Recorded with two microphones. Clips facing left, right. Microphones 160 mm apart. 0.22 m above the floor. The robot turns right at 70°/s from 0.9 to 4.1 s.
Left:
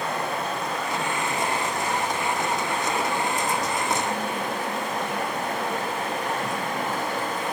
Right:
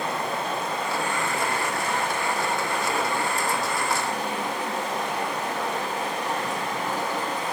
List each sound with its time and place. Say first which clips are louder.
0.0 s running water: even; 145° right, 2 m; by 7.5 s 80° left, 2 m